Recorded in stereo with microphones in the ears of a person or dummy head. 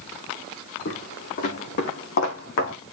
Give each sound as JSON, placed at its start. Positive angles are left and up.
{"t": 0.8, "sound": "footsteps", "side_deg": 45, "distance_m": 4.5}